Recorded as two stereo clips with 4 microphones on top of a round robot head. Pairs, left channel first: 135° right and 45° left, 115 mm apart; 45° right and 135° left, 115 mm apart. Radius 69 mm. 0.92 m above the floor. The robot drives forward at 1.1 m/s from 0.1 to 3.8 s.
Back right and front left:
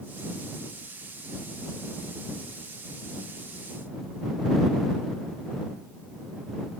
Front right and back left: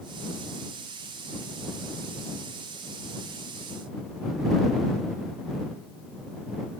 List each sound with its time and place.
Only background noise.